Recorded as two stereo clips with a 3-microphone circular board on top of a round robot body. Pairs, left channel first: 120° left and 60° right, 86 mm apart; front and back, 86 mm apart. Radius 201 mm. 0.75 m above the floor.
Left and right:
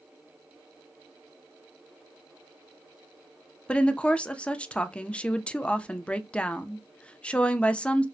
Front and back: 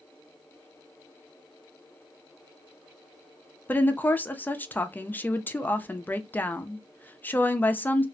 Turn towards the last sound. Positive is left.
turn(degrees=50)